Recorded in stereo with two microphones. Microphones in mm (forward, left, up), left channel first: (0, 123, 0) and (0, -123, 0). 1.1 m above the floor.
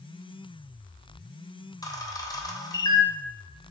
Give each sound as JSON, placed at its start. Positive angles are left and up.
{"t": 1.8, "sound": "a camera shutter", "side_deg": 15, "distance_m": 0.5}